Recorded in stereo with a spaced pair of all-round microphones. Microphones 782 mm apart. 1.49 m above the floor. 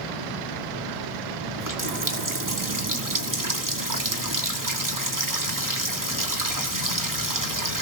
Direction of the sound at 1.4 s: 25° right (ahead or behind).